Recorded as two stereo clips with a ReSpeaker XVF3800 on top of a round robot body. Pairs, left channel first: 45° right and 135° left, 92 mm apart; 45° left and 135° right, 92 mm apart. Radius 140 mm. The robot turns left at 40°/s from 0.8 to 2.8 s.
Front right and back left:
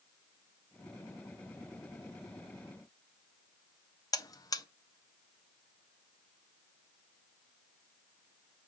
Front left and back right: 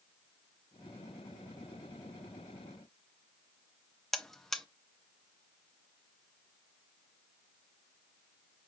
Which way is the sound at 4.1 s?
40° right.